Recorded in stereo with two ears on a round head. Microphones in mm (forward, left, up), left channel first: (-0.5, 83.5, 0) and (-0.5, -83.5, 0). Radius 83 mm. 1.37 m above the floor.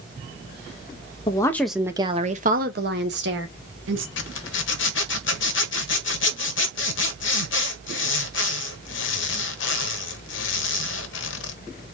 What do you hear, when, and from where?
1.3 s a woman speaking: 25° left (ahead or behind), 0.7 m; by 4.1 s 75° right (ahead or behind), 1.7 m
4.2 s a zipper: 70° left (ahead or behind), 1.0 m